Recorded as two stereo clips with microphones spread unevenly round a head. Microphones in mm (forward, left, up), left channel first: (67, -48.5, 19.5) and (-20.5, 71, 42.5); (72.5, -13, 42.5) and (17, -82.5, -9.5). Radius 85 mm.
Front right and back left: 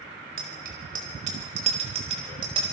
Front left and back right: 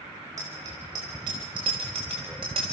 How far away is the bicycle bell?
About 4.5 m.